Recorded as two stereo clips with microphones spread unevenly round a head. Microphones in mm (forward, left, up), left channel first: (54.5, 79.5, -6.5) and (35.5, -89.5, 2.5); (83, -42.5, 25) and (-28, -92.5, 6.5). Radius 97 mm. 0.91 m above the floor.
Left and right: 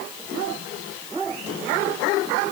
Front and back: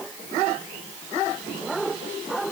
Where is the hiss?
No hiss in this recording.